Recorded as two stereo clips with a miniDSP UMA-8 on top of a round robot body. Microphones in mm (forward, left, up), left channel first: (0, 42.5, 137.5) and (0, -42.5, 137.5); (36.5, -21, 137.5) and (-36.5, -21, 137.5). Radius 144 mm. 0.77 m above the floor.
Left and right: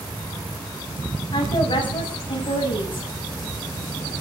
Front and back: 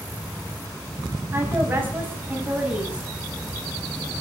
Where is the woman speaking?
120° left, 7.5 m; by 3.1 s 105° left, 7.5 m.